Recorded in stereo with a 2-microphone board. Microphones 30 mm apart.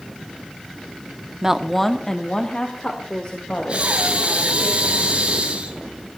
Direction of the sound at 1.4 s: 20° right (ahead or behind).